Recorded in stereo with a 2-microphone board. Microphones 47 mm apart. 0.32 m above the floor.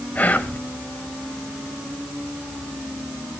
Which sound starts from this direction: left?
Whispering, at 0.1 s.